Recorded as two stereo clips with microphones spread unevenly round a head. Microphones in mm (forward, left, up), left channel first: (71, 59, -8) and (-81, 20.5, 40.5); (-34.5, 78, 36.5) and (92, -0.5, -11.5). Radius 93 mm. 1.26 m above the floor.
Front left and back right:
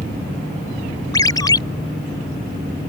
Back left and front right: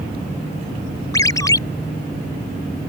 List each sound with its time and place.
1.1 s a ringtone: 80° left